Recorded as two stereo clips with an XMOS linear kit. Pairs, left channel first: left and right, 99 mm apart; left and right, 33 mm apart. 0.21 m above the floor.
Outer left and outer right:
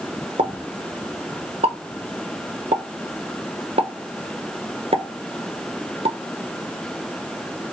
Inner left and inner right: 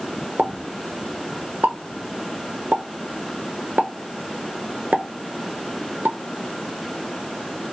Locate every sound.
0.4 s a pop: 65° right (ahead or behind), 0.7 m